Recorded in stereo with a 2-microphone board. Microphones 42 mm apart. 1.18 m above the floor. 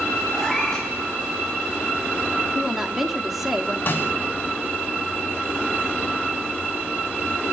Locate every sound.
0.3 s a cat meowing: 5° left (ahead or behind), 9 m
2.5 s a woman speaking: 5° right (ahead or behind), 3 m
3.9 s a snare drum: 45° left (ahead or behind), 9.5 m